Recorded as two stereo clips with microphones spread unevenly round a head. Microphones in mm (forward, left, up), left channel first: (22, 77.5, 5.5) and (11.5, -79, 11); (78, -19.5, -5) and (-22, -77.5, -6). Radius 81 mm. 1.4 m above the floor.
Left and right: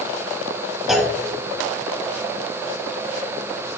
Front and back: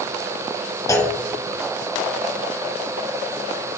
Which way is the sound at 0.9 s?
10° right.